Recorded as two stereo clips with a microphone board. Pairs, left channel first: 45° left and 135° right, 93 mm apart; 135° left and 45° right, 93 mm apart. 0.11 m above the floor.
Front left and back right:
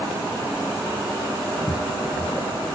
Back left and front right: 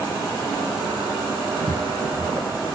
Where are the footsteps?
40° left.